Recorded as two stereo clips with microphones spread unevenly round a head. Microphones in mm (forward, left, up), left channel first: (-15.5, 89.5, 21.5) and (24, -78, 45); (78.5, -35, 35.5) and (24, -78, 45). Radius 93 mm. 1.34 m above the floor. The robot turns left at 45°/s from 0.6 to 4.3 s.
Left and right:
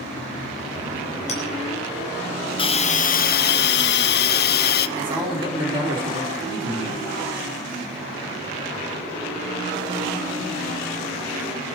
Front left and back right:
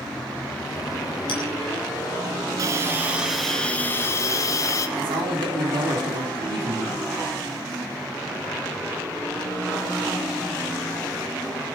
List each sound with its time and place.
1.3 s a clink: 50° left, 4 m; by 1.4 s 45° left, 4 m
2.6 s a hiss: 160° left, 0.7 m; by 4.9 s 85° left, 0.7 m
5.0 s a man speaking: 145° right, 4 m